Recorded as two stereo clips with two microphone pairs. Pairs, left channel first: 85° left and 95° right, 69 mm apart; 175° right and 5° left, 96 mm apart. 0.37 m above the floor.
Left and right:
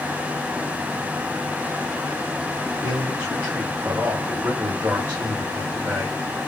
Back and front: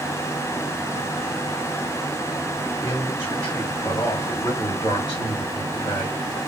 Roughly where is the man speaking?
Behind right.